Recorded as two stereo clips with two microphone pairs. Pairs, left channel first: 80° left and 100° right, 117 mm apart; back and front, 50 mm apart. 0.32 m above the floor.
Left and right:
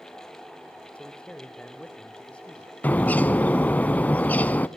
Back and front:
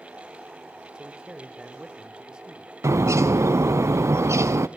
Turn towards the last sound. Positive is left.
turn(degrees=5)